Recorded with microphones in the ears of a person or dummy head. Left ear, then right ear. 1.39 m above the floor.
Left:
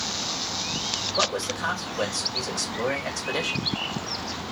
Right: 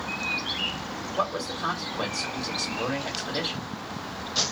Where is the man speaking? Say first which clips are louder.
Left 1 dB; 75° left (ahead or behind), 2.5 m.